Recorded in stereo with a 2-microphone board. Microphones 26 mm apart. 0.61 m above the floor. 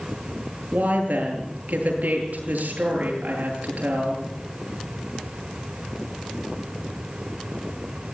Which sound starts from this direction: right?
A woman speaking, at 0.7 s.